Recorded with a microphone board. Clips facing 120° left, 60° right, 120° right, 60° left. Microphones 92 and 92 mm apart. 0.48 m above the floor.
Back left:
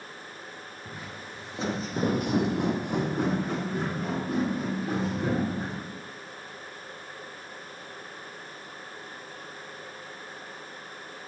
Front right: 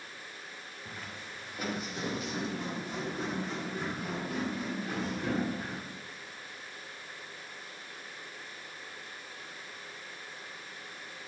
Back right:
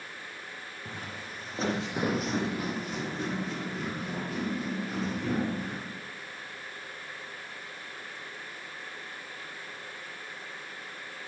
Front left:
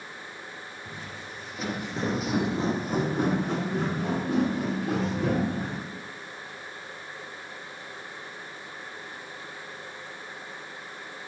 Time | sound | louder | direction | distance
0.8 | footsteps | back left 3 dB, back right 2 dB | 160° right | 2.5 m